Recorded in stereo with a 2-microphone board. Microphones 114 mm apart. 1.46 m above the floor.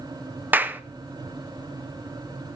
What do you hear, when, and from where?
0.5 s a clap: 15° right (ahead or behind), 0.8 m